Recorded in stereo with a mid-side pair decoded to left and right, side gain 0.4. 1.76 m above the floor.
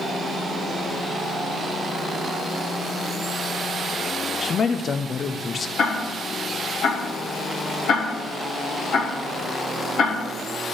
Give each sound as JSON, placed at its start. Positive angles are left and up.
{"t": 4.4, "sound": "a man speaking", "azimuth_deg": 45, "distance_m": 1.0}
{"t": 5.8, "sound": "ticking", "azimuth_deg": 65, "distance_m": 3.0}